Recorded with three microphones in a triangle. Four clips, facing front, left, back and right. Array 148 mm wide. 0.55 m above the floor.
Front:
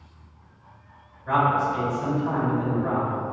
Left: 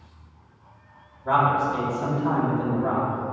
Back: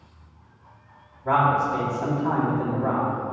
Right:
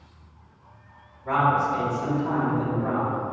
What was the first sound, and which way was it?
A man speaking, 160° left.